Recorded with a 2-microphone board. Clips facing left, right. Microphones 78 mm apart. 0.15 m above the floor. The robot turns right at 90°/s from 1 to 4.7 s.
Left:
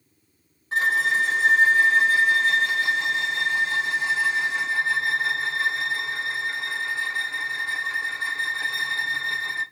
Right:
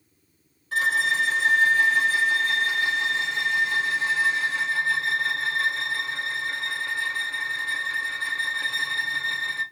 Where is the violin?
45° left, 1.6 m; by 9.6 s 20° left, 1.6 m.